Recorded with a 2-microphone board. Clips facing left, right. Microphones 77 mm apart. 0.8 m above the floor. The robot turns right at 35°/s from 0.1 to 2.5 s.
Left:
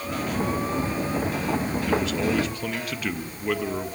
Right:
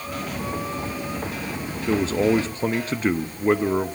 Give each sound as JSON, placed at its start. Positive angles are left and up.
{"t": 1.9, "sound": "a man speaking", "side_deg": -30, "distance_m": 0.5}